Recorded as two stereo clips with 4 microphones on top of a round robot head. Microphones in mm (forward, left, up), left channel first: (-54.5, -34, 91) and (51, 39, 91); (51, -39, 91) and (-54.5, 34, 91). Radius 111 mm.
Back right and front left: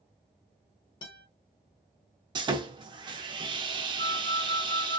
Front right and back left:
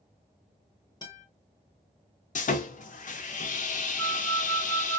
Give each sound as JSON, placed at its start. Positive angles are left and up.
{"t": 1.0, "sound": "a guitar", "azimuth_deg": -95, "distance_m": 1.0}
{"t": 2.4, "sound": "sawing", "azimuth_deg": -20, "distance_m": 0.6}
{"t": 4.0, "sound": "a flute", "azimuth_deg": -110, "distance_m": 1.2}